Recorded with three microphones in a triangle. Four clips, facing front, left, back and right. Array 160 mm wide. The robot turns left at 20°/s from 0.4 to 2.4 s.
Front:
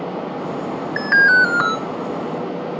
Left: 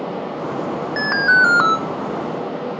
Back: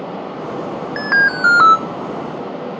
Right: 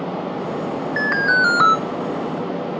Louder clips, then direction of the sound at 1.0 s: Left 3 dB, front 2 dB; 145° left.